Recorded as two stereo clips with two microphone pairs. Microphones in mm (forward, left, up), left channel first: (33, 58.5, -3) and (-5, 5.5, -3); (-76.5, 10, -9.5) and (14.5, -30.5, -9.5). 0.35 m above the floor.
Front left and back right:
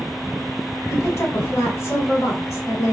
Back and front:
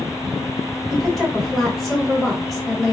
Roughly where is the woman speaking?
Left.